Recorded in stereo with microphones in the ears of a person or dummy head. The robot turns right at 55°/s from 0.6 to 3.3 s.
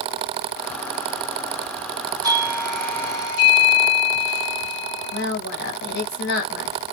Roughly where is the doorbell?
Ahead right.